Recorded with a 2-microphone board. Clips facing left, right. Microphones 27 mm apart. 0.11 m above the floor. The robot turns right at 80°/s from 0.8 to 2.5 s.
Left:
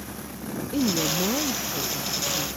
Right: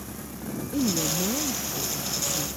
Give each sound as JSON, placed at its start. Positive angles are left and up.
{"t": 0.7, "sound": "a woman speaking", "azimuth_deg": 35}